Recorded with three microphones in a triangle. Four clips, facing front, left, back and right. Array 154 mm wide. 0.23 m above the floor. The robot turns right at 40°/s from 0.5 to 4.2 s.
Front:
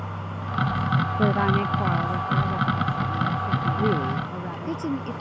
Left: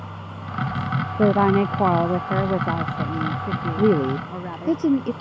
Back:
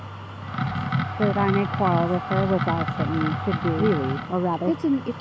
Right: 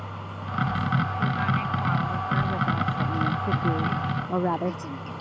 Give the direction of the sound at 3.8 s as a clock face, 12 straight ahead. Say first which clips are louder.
Left 9 dB, back 1 dB; 9 o'clock.